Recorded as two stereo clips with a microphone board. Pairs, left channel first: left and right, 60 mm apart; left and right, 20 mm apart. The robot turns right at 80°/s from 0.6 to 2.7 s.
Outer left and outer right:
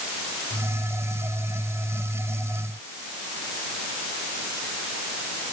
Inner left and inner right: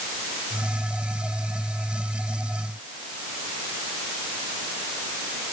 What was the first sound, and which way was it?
Only background noise.